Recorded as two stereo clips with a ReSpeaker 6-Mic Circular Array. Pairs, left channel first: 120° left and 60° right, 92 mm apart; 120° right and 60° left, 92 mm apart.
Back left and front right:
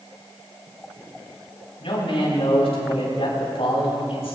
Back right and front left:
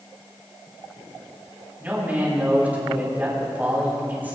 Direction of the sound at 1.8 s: 130° left.